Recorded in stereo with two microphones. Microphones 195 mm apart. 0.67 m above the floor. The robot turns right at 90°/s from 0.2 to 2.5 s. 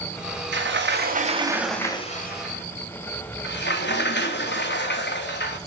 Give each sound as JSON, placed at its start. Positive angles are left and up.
{"t": 0.5, "sound": "a sliding door", "azimuth_deg": -105, "distance_m": 0.9}